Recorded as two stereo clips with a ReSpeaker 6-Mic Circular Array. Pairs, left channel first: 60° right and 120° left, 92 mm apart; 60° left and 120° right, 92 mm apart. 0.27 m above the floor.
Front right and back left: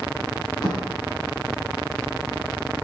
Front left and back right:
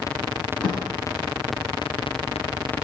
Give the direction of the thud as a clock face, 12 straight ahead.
1 o'clock.